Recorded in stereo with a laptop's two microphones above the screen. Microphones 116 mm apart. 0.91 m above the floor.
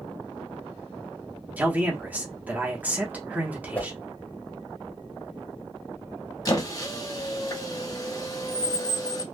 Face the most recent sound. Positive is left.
turn(degrees=30)  # may be behind; listen again after turning